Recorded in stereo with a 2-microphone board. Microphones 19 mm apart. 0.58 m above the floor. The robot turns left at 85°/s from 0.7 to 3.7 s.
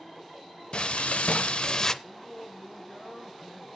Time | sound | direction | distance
0.7 | frying | 120° left | 0.6 m
2.0 | singing | 10° right | 5 m